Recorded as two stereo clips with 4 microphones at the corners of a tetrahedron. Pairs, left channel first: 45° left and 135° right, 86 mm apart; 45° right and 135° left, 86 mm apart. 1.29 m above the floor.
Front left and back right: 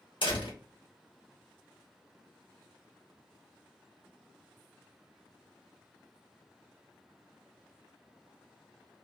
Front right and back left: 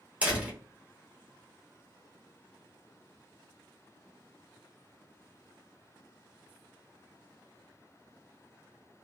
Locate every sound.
0.2 s a door slam: 60° left, 1.7 m